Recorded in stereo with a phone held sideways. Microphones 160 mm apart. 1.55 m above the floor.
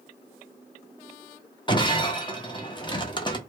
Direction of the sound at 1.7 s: 30° left (ahead or behind).